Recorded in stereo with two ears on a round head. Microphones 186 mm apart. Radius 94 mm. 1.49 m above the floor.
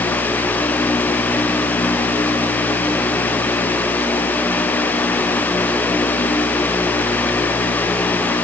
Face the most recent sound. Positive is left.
No sound to turn to.